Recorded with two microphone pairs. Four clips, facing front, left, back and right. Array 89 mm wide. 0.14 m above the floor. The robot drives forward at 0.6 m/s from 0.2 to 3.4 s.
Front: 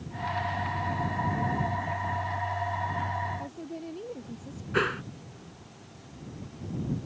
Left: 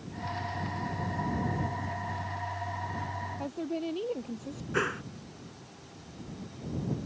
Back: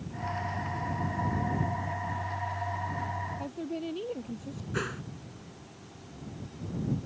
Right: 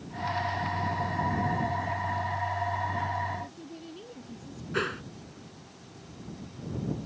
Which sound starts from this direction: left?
A woman speaking, at 3.4 s.